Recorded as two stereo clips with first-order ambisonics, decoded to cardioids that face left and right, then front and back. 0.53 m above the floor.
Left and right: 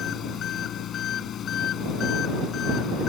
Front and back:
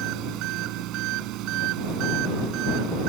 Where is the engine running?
145° left.